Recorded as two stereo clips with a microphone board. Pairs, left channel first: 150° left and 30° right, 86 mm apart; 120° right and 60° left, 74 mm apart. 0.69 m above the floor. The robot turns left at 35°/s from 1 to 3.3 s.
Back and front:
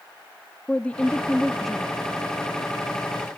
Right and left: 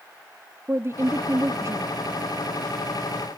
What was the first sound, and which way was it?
A woman speaking, 80° left.